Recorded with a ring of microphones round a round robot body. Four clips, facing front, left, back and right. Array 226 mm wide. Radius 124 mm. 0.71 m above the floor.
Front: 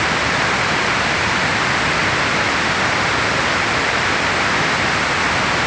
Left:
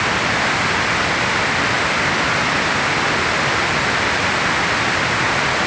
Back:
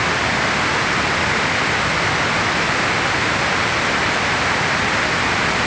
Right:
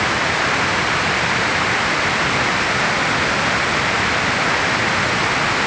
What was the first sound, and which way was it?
Only background noise.